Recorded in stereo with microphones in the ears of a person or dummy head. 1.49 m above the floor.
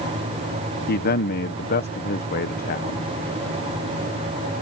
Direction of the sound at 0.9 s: 45° left (ahead or behind).